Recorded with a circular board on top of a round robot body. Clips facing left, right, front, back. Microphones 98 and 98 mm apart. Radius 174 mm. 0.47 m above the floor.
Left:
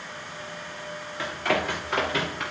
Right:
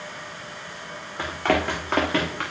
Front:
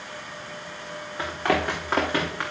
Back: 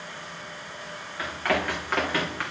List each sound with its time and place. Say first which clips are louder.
1.2 s running footsteps: right 3 dB, front 2 dB; 60° right, 3 m; by 2.4 s 75° right, 3.5 m